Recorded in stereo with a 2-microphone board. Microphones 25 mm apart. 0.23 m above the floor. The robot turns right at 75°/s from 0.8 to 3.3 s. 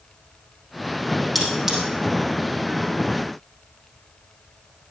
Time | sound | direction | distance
1.4 | cutlery clinking | centre (ahead or behind) | 4.5 m